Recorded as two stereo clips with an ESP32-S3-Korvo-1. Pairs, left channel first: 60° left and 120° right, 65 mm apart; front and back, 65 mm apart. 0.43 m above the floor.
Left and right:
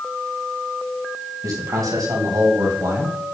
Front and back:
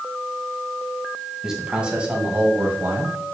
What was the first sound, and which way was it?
A man speaking, 100° right.